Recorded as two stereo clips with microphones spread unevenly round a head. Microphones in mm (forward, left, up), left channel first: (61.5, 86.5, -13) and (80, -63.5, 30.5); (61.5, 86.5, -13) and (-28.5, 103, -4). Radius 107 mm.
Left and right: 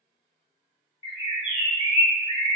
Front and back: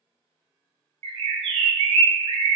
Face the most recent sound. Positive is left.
turn(degrees=165)